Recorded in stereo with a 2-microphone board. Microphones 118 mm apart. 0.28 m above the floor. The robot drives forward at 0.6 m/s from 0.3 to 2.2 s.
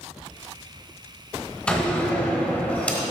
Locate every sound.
1.7 s a door slam: 10° left (ahead or behind), 1.6 m